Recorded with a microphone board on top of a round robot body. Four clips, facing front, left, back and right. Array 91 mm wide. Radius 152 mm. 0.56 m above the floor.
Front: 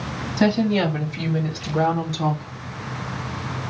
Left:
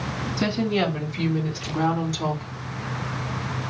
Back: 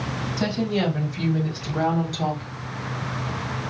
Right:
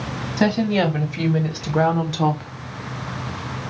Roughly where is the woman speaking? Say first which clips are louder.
Right 5 dB, front 6 dB; ahead right.